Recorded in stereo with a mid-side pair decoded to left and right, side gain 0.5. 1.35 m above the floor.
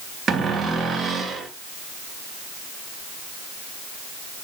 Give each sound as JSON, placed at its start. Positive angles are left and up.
{"t": 0.3, "sound": "a cupboard door", "azimuth_deg": -40, "distance_m": 2.5}